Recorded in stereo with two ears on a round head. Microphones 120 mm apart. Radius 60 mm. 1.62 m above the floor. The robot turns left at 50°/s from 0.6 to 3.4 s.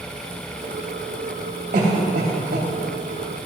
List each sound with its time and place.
1.7 s a cough: 60° right (ahead or behind), 3 m; by 2.7 s 65° right (ahead or behind), 3 m